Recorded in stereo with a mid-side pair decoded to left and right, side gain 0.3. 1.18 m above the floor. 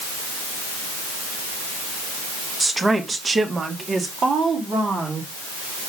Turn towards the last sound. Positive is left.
turn(degrees=-75)